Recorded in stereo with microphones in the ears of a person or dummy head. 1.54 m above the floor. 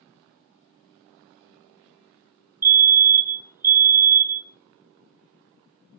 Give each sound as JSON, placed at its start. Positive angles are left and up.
{"t": 2.6, "sound": "a fire alarm", "side_deg": -15, "distance_m": 0.9}